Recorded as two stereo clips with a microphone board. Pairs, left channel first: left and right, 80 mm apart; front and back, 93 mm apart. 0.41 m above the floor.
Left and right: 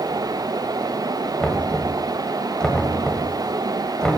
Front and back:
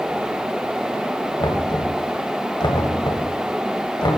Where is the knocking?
10° left, 1.9 m.